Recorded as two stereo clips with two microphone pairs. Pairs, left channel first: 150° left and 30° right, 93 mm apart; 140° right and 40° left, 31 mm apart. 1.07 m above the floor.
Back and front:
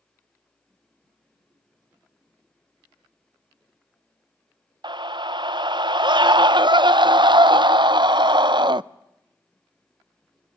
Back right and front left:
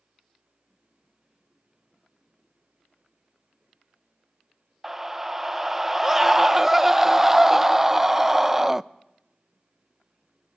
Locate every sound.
4.8 s a scream: 35° right, 0.6 m